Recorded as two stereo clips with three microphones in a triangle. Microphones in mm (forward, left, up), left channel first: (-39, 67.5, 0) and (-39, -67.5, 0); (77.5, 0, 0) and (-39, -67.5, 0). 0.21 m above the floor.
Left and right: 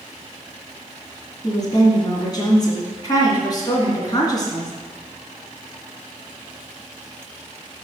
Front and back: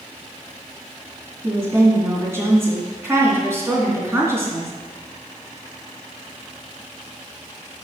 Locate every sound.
1.4 s a woman speaking: 145° left, 2.5 m